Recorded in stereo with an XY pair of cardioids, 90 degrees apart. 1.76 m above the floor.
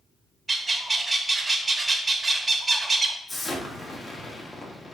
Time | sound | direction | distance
0.5 | a bird | 25° right | 0.8 m
3.3 | an explosion | 35° left | 1.2 m